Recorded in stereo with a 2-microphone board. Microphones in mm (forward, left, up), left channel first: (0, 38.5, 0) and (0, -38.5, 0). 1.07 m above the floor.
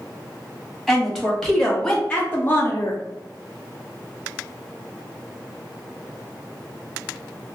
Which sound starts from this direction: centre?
A woman speaking, at 0.9 s.